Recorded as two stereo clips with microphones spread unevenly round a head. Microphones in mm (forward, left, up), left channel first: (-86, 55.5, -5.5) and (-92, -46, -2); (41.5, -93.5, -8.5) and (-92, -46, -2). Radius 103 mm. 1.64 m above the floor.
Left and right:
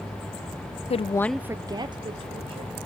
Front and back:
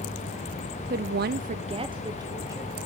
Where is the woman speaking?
115° left, 0.6 m; by 2.8 s 130° right, 2 m.